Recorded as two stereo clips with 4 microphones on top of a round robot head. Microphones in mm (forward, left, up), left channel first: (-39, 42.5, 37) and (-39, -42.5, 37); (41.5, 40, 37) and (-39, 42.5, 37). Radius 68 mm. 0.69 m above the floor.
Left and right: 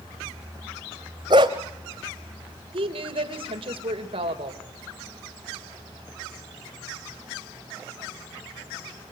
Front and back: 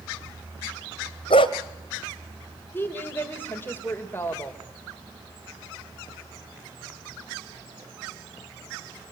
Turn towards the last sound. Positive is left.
turn(degrees=-70)